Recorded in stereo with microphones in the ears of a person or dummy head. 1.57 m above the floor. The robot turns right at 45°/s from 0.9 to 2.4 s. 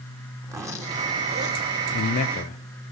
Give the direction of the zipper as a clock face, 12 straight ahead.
6 o'clock.